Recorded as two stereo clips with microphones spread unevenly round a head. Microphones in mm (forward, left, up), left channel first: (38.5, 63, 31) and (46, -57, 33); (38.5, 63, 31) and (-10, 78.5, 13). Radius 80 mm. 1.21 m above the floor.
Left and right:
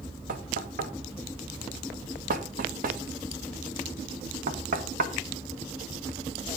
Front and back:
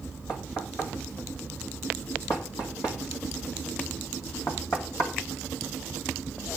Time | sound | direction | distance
0.3 | knocking | 85° right | 1.9 m